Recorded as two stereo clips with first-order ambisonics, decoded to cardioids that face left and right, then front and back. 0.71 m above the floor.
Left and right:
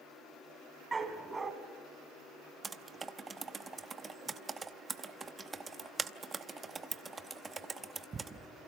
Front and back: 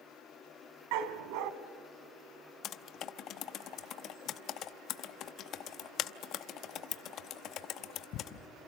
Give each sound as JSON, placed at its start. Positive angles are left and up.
{"t": 0.9, "sound": "a dog barking", "azimuth_deg": -165, "distance_m": 1.6}
{"t": 2.6, "sound": "typing on a keyboard", "azimuth_deg": -25, "distance_m": 0.8}